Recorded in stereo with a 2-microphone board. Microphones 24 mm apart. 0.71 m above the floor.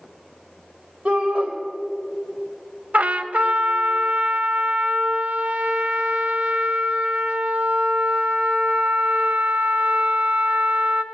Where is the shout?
45° right (ahead or behind), 1.3 m.